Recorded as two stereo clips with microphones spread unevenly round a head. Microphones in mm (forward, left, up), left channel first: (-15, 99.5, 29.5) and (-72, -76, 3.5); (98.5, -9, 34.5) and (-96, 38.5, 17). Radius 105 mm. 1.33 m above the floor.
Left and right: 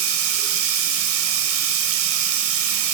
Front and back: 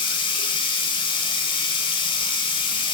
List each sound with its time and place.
0.0 s running water: 80° right, 3.5 m